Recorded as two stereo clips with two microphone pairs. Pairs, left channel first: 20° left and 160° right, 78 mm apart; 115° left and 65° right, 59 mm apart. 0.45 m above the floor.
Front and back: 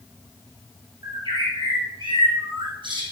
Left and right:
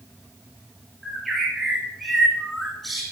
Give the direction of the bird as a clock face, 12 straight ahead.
5 o'clock.